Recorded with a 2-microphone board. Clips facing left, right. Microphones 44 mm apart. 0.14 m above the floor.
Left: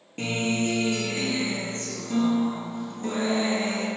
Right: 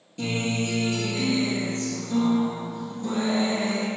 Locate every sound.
0.2 s a guitar: 45° left (ahead or behind), 2 m